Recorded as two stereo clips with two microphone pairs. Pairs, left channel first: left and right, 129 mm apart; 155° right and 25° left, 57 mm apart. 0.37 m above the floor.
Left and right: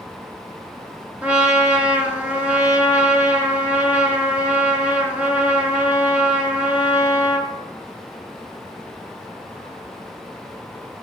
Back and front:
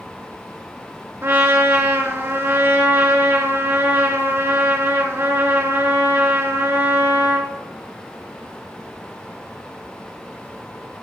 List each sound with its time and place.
1.2 s a trumpet: 10° right, 3.5 m